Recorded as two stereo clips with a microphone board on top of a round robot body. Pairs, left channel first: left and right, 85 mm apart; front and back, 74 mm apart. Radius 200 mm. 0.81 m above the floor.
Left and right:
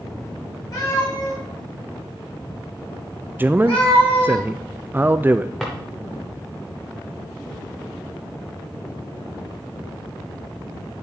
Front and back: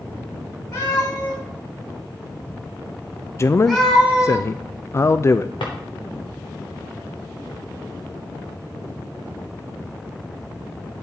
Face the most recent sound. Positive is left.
turn(degrees=0)